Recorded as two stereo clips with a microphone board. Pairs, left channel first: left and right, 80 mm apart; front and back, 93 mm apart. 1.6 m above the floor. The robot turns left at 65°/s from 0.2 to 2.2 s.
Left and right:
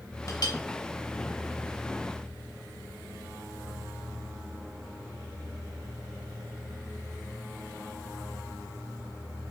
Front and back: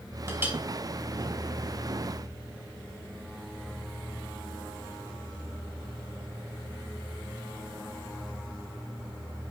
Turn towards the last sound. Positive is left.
turn(degrees=0)